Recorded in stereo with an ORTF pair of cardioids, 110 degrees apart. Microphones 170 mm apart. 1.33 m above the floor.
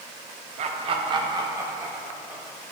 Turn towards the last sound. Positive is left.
turn(degrees=-10)